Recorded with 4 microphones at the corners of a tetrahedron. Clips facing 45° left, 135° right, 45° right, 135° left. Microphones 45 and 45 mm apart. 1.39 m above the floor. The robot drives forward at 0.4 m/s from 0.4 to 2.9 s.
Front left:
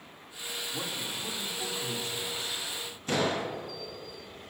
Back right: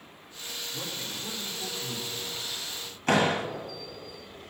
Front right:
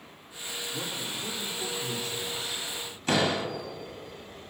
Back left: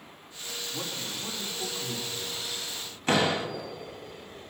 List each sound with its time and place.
0.7 s a man speaking: 85° left, 3 m; by 2.6 s 95° left, 3 m
3.1 s a door slam: 170° right, 1.5 m